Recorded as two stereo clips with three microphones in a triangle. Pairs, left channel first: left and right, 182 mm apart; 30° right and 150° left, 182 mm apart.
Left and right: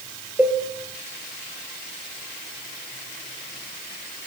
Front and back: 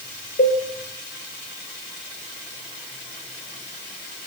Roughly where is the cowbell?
Ahead.